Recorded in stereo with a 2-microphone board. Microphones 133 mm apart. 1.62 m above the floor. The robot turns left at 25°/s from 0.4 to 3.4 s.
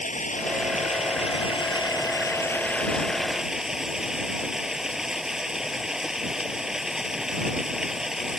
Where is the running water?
70° left; by 8.4 s 5° right.